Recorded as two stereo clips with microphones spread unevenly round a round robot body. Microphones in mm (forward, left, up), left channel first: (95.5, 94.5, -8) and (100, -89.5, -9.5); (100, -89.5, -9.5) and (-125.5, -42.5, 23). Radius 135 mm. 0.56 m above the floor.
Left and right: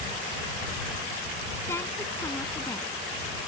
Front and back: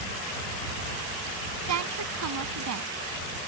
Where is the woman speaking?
170° left.